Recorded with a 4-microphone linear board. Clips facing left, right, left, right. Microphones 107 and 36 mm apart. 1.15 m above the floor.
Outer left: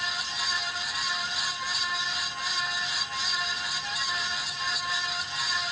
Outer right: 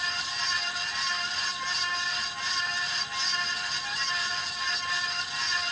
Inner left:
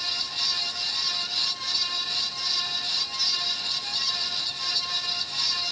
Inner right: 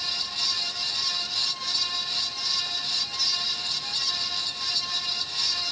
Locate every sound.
Only background noise.